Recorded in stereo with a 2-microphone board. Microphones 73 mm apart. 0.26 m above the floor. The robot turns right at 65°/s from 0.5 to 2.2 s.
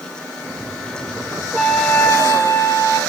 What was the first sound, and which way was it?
A trumpet, straight ahead.